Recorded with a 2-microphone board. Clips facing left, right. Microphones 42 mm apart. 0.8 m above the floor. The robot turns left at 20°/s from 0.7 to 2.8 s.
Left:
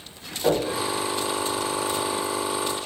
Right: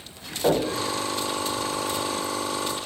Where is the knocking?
20° right (ahead or behind), 1.1 m.